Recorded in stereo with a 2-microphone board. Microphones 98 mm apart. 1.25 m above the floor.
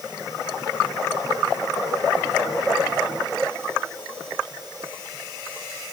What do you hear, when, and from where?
Only background noise.